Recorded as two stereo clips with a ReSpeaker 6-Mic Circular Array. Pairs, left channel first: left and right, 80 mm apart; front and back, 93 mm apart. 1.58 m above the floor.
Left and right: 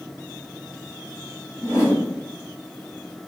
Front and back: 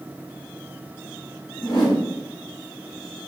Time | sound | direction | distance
1.6 | a whoosh | 35° left | 1.2 m